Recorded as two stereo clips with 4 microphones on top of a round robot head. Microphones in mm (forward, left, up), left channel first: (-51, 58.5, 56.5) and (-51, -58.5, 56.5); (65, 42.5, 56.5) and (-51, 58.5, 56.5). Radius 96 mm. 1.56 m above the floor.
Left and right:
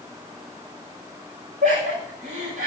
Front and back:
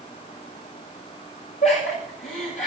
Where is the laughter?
50° right, 10 m.